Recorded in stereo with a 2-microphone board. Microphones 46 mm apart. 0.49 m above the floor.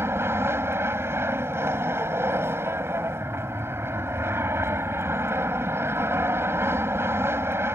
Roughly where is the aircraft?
Right.